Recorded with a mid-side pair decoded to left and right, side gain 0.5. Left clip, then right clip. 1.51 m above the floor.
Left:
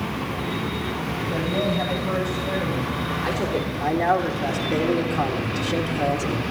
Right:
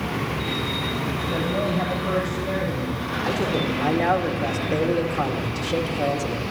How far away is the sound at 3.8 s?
About 2 m.